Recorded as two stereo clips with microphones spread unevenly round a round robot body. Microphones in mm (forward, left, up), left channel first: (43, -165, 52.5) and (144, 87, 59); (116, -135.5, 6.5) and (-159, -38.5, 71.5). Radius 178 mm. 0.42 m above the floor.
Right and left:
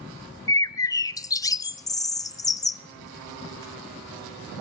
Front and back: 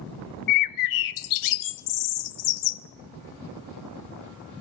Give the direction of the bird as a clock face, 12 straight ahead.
1 o'clock.